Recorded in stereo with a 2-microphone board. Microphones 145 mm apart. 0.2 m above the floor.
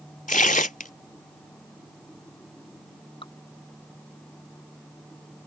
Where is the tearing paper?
65° left (ahead or behind).